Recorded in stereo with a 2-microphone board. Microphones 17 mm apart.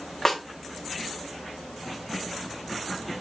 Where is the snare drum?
25° left (ahead or behind), 2 m.